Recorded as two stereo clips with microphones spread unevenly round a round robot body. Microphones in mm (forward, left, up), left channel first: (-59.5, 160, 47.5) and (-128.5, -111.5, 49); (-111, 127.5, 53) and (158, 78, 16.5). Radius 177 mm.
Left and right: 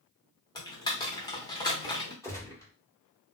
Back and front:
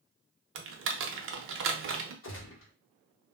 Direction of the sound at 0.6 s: Straight ahead.